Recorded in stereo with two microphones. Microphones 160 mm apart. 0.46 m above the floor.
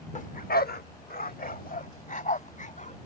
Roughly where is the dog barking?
Left.